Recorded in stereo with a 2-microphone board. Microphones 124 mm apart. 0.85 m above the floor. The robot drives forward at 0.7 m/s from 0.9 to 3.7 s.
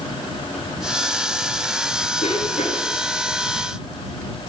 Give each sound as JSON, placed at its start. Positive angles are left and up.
{"t": 2.2, "sound": "a cough", "side_deg": 75, "distance_m": 7.0}